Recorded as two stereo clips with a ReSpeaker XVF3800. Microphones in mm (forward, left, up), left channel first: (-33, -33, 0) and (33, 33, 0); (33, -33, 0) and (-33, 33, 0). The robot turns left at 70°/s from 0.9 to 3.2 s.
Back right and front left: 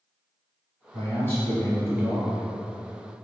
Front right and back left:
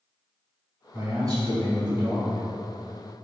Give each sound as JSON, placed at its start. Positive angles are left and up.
{"t": 0.9, "sound": "a man speaking", "azimuth_deg": -170, "distance_m": 1.7}